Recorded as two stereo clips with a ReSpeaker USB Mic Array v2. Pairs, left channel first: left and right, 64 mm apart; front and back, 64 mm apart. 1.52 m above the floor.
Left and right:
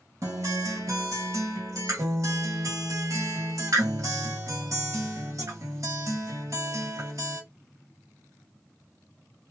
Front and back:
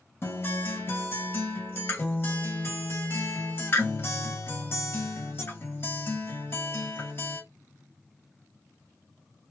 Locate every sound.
0.2 s a guitar: 50° right, 1.8 m